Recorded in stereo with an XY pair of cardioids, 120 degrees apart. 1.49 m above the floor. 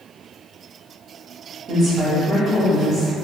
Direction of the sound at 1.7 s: 45° right.